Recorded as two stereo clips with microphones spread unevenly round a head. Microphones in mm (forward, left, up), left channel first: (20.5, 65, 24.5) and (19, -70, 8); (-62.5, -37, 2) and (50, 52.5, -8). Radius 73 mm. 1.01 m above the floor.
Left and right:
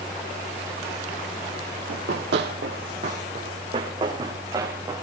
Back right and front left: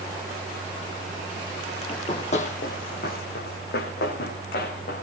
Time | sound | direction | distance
1.9 | running footsteps | 85° right | 2.5 m